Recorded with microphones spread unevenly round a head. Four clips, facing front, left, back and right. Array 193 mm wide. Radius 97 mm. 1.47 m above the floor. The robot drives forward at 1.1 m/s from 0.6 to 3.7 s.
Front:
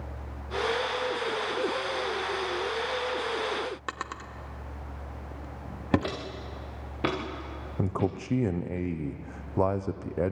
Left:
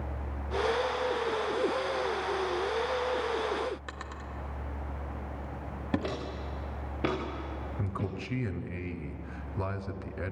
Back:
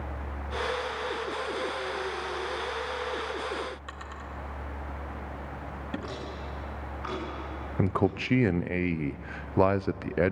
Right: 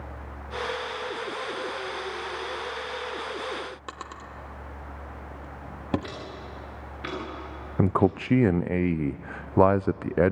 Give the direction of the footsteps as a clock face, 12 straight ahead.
11 o'clock.